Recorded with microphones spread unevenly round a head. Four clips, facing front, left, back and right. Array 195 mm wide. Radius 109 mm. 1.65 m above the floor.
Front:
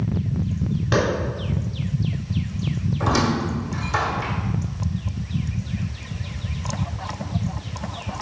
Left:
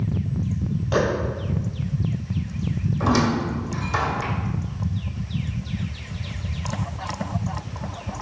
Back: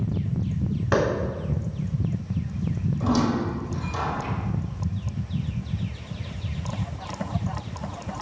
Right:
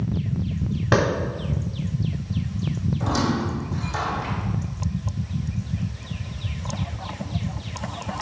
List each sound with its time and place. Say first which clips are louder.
0.9 s a clap: right 2 dB, front 1 dB; 100° right, 3 m
3.0 s a squeak: left 4 dB, front 1 dB; 55° left, 1.6 m